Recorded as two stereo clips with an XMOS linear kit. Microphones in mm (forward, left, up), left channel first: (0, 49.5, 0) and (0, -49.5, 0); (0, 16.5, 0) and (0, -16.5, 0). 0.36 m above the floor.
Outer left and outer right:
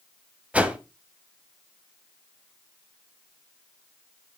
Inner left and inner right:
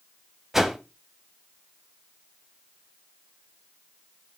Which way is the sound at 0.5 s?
10° right (ahead or behind).